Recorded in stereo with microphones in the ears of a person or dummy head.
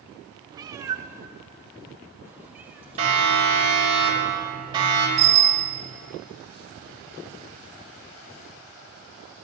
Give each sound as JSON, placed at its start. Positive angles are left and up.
{"t": 0.5, "sound": "a cat meowing", "side_deg": -20, "distance_m": 0.6}
{"t": 3.0, "sound": "a siren", "side_deg": -35, "distance_m": 7.0}
{"t": 5.2, "sound": "a bicycle bell", "side_deg": -40, "distance_m": 3.0}